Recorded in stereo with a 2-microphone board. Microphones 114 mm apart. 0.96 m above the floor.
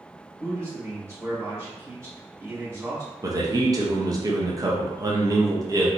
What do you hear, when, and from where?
0.4 s a man speaking: 25° right (ahead or behind), 1.7 m
3.2 s a man speaking: 30° right (ahead or behind), 0.6 m